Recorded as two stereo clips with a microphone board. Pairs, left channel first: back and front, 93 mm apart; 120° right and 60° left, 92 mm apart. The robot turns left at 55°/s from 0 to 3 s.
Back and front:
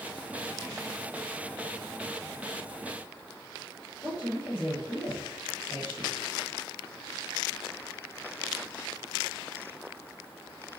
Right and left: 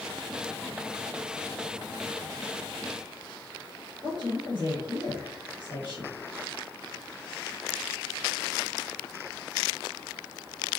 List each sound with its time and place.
4.0 s a woman speaking: 70° left, 1.6 m